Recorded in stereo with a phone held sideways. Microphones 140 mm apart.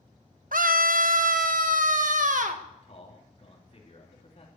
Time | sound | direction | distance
0.5 | a scream | 80° right | 0.9 m
2.7 | a man speaking | 50° left (ahead or behind) | 3.5 m